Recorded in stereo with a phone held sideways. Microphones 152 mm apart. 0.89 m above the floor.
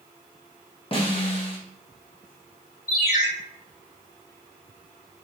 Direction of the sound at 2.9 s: 70° left (ahead or behind).